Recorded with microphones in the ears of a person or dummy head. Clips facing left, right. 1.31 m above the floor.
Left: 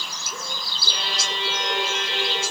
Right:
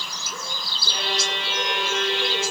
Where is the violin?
65° right (ahead or behind), 9 m.